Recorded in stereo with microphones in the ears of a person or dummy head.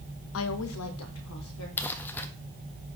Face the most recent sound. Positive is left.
turn(degrees=10)  # may be behind; listen again after turning